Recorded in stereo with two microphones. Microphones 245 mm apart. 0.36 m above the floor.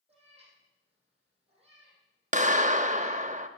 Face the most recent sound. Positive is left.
turn(degrees=-30)  # may be behind; listen again after turning